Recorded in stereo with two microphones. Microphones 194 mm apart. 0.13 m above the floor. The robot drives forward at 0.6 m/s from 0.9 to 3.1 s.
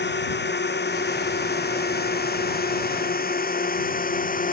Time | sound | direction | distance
0.0 | a drone | 65° left (ahead or behind) | ?